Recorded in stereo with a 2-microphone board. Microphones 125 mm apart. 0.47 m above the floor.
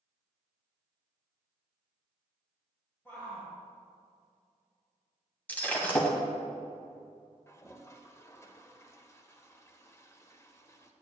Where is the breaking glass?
15° left (ahead or behind), 1.4 m.